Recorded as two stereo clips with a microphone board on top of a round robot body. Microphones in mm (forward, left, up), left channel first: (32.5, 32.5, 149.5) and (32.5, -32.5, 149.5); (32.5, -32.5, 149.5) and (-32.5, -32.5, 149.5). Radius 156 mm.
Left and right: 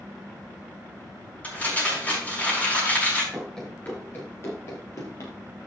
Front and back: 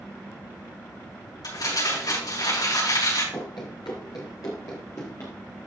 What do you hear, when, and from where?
1.4 s crumpling: 25° left, 5.5 m
3.3 s running footsteps: 5° left, 1.1 m; by 5.3 s 55° left, 1.8 m